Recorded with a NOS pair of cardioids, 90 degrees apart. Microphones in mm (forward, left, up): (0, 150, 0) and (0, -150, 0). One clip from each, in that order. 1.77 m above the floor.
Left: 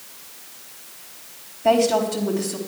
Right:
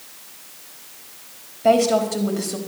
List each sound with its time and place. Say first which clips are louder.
1.6 s a woman speaking: right 1 dB; 40° right, 4 m